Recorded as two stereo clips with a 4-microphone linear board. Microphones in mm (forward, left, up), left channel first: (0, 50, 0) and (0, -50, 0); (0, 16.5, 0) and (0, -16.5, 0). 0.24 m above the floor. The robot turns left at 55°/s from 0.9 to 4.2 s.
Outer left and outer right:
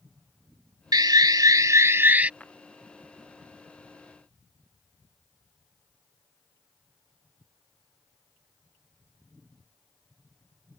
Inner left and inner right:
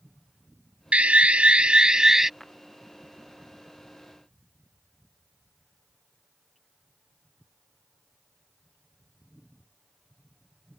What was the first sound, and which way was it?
An alarm, 85° right.